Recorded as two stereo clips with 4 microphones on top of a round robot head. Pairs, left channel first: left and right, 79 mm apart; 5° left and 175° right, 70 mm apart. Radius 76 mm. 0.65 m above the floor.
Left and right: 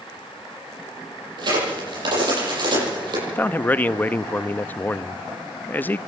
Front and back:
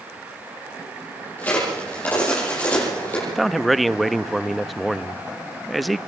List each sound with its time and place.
1.4 s a crack: 65° right, 9.5 m
3.3 s a man speaking: 95° left, 0.6 m